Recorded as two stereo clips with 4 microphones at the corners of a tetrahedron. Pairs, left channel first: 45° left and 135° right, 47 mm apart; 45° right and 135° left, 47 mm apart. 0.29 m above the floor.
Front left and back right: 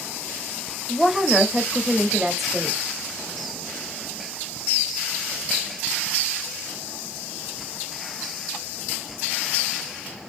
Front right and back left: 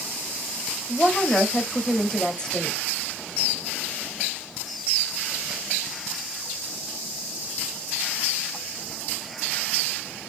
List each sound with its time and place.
0.9 s a woman speaking: 55° right, 1.0 m